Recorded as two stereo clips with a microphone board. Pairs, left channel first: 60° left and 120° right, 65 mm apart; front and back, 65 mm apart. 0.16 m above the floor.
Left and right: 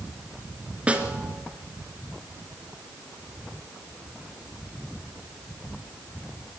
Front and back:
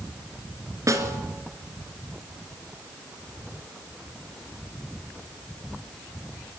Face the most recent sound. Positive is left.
turn(degrees=175)